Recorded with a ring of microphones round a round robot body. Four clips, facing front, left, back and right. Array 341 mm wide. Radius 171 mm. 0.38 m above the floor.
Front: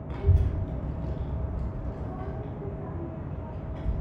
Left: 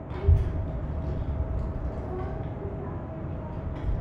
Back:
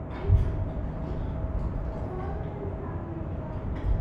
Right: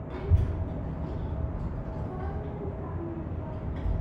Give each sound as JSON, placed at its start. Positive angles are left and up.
{"t": 0.1, "sound": "a child speaking", "azimuth_deg": 10, "distance_m": 1.2}